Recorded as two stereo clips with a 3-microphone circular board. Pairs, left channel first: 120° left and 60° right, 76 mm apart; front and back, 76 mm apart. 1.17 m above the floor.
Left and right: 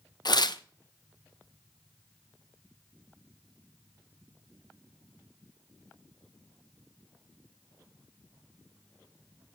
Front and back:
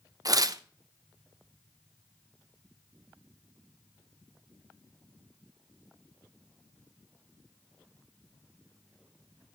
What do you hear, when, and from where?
0.2 s tearing paper: 140° left, 0.6 m